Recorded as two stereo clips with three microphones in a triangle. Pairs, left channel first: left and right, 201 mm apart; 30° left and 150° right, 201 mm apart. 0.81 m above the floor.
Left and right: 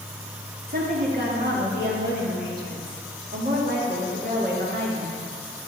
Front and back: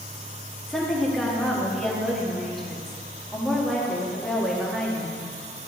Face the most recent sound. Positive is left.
turn(degrees=-60)